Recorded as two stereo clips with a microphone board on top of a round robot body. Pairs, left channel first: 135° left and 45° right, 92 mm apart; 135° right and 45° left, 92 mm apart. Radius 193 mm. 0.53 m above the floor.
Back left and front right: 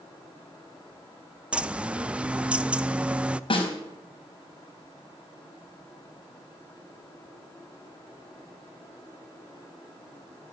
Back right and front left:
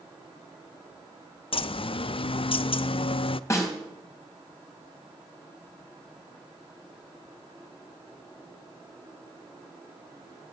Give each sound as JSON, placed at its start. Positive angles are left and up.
{"t": 1.5, "sound": "a bird", "azimuth_deg": -125, "distance_m": 0.6}
{"t": 3.5, "sound": "a snare drum", "azimuth_deg": 165, "distance_m": 4.0}